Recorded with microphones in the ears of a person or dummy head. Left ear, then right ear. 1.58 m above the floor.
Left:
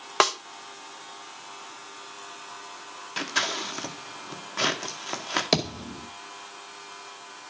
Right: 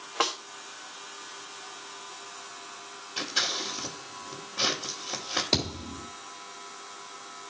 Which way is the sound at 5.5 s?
50° left (ahead or behind).